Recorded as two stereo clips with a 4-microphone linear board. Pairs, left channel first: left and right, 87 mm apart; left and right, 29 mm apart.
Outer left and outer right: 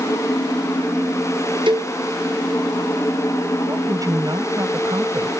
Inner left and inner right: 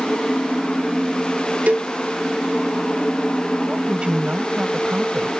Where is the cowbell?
60° right (ahead or behind).